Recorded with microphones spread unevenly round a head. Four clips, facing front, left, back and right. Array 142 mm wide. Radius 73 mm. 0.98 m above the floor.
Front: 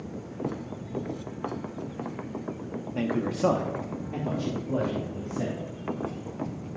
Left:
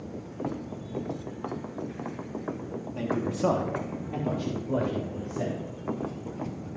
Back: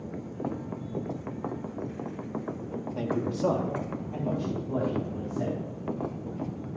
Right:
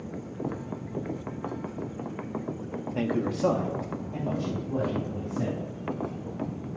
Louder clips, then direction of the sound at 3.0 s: Right 2 dB, front 2 dB; 70° right.